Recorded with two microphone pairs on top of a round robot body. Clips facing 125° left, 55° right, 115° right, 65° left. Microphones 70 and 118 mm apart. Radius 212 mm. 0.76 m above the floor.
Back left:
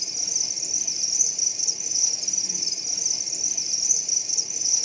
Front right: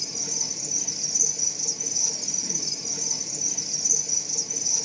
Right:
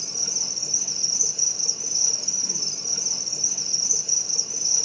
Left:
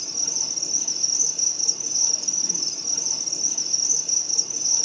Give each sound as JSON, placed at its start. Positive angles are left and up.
{"t": 0.0, "sound": "an insect", "azimuth_deg": -15, "distance_m": 1.1}